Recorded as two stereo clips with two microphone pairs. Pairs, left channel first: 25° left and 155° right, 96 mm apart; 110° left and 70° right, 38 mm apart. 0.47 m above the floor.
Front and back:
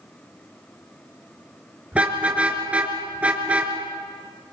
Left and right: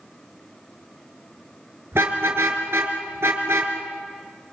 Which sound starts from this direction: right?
A car horn, at 1.9 s.